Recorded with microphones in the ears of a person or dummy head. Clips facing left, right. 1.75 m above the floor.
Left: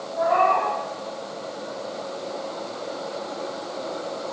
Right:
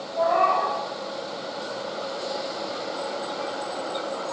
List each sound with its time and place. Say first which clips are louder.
0.2 s a cat meowing: left 1 dB; 5° left (ahead or behind), 2 m